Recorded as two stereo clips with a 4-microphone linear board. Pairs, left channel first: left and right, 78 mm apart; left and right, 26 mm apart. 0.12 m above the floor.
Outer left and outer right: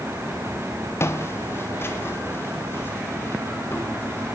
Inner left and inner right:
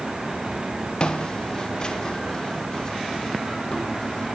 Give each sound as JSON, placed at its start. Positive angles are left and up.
{"t": 1.0, "sound": "footsteps", "side_deg": 35, "distance_m": 1.9}